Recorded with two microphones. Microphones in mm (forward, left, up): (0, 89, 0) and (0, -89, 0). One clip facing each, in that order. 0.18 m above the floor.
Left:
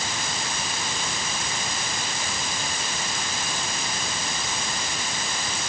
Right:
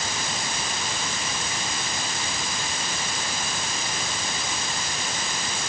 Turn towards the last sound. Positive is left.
No sound to turn to.